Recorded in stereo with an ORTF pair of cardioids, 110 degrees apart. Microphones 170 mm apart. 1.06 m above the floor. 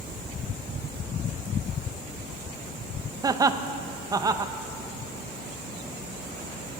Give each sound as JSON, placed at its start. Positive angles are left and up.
{"t": 3.2, "sound": "laughter", "azimuth_deg": -20, "distance_m": 0.5}